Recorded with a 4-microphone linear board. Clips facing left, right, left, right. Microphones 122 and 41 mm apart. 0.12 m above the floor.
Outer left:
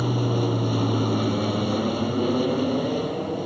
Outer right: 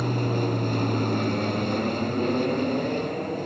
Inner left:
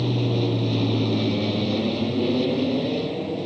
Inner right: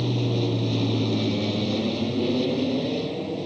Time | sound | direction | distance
0.0 | an aircraft | 5° left (ahead or behind) | ?